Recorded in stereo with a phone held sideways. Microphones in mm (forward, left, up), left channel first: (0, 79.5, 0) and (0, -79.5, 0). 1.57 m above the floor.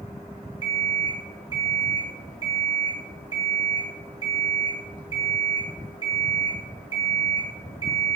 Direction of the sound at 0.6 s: 35° right (ahead or behind).